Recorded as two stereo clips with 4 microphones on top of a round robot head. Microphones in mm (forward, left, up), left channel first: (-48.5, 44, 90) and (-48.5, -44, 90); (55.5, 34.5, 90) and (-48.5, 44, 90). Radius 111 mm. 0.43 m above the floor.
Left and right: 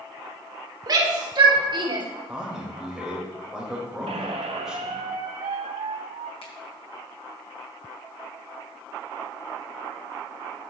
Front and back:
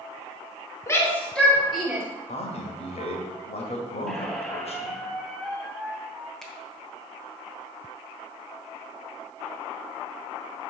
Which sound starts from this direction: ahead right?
A shout, at 0.9 s.